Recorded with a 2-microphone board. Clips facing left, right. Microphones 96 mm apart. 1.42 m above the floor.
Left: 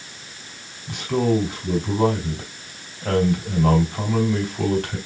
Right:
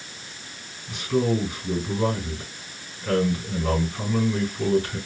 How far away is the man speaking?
About 3 m.